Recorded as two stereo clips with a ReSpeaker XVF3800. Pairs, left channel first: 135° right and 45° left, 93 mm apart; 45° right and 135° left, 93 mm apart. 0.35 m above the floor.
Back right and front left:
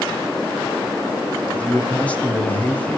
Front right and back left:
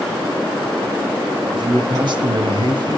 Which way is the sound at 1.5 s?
150° left.